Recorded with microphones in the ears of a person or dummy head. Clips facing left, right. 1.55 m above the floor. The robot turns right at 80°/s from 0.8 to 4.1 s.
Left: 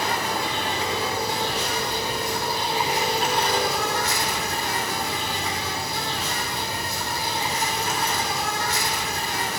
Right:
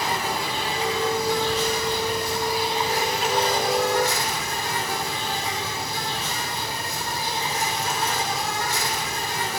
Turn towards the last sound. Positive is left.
turn(degrees=110)